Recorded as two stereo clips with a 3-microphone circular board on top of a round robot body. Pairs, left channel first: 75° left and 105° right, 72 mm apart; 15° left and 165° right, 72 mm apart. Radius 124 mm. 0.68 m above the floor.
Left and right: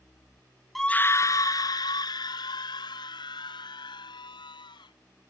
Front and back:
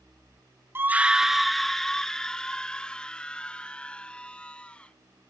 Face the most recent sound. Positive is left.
turn(degrees=90)